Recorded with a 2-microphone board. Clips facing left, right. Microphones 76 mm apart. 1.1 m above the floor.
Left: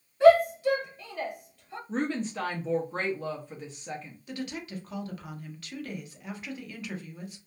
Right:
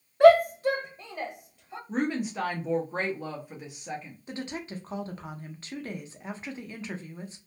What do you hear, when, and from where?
0.2 s a shout: 60° right (ahead or behind), 0.7 m; by 1.8 s 10° right (ahead or behind), 1.2 m
1.9 s a woman speaking: 10° right (ahead or behind), 0.5 m
4.3 s a woman speaking: 30° right (ahead or behind), 0.6 m